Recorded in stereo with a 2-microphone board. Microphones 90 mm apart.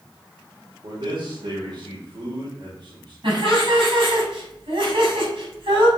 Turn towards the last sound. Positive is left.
turn(degrees=-70)  # may be behind; listen again after turning